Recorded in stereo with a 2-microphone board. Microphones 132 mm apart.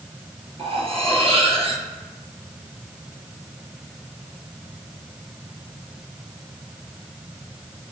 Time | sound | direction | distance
0.6 | cutlery clinking | 50° right (ahead or behind) | 3 m